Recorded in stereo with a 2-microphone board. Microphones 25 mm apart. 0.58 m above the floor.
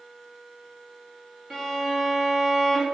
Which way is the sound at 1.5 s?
20° right (ahead or behind).